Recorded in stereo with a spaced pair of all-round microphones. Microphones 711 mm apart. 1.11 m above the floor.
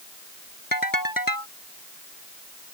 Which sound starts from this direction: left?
A ringtone, at 0.7 s.